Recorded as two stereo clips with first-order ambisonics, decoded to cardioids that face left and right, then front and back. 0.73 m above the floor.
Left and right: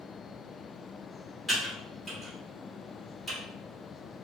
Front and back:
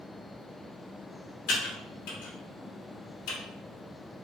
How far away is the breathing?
I don't hear breathing.